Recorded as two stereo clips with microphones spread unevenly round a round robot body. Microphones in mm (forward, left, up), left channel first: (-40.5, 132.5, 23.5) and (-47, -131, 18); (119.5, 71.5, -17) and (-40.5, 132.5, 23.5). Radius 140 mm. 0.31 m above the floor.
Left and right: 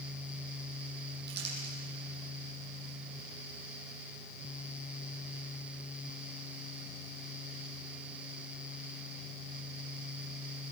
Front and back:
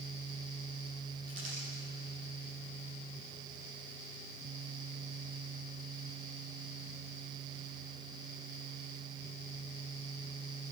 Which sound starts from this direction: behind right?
Crumpling, at 1.3 s.